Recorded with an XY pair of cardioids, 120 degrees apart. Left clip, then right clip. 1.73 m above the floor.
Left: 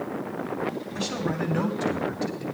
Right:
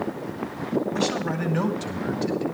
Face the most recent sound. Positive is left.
turn(degrees=5)